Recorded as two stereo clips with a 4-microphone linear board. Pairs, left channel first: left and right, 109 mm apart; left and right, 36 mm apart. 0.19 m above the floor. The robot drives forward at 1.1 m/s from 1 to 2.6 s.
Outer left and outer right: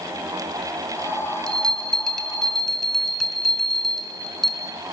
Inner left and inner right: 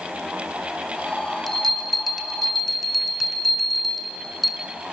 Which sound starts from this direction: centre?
A bell, at 1.5 s.